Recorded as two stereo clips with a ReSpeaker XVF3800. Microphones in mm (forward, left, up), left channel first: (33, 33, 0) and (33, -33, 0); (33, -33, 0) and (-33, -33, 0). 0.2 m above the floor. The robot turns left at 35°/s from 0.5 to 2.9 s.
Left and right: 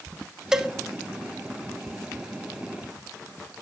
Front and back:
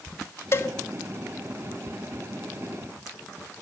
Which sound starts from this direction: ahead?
A cowbell, at 0.5 s.